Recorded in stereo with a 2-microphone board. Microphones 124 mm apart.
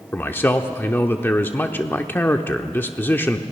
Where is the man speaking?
15° left (ahead or behind), 0.7 m.